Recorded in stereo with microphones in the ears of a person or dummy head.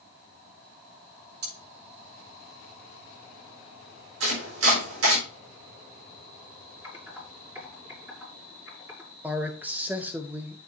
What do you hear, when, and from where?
1.4 s cutlery clinking: 65° right (ahead or behind), 7.5 m
4.2 s chopping: 80° right, 5 m
6.8 s typing on a keyboard: 10° right (ahead or behind), 6 m
9.2 s a man speaking: 10° right (ahead or behind), 0.7 m